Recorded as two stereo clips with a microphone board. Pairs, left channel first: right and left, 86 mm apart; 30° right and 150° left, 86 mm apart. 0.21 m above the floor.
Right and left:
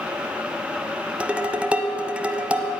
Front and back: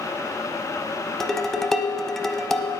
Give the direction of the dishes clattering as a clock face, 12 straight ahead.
10 o'clock.